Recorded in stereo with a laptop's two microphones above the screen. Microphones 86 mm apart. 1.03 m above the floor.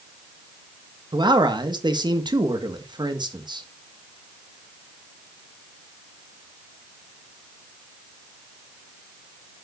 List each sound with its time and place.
1.1 s a man speaking: 60° right (ahead or behind), 1.7 m